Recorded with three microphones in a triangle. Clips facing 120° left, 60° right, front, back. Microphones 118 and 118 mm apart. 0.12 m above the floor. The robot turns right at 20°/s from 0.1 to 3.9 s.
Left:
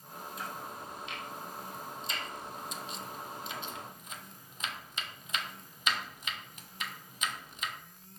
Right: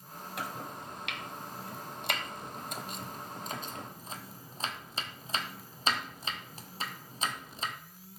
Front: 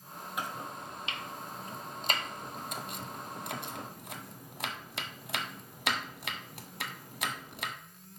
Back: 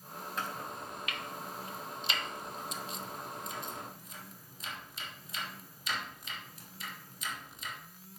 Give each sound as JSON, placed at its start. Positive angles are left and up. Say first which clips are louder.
{"t": 0.4, "sound": "chopping", "louder": "right 3 dB, front 1 dB", "azimuth_deg": -75, "distance_m": 0.9}